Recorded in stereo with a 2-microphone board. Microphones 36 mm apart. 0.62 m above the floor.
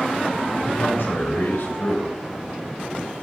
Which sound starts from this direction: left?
A man speaking, at 0.6 s.